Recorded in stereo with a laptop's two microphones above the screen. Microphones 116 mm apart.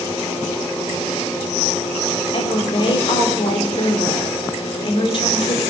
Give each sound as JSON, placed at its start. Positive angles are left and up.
{"t": 2.3, "sound": "a woman speaking", "side_deg": 45, "distance_m": 3.0}